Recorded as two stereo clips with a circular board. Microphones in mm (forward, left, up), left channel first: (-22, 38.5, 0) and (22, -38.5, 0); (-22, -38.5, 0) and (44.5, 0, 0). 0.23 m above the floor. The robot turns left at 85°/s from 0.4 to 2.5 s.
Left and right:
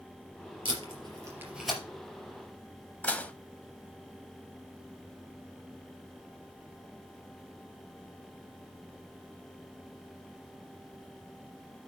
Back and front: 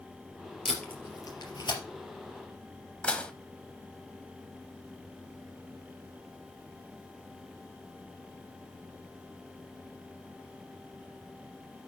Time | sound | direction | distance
0.7 | tape being pulled | 60° right | 3.5 m
3.0 | dishes clattering | 165° left | 0.8 m